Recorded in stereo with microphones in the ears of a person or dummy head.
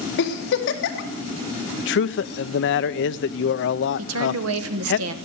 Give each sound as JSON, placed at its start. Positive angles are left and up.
{"t": 0.2, "sound": "a giggle", "side_deg": 60, "distance_m": 1.8}
{"t": 1.8, "sound": "a man speaking", "side_deg": 60, "distance_m": 0.6}
{"t": 4.0, "sound": "a woman speaking", "side_deg": -75, "distance_m": 1.2}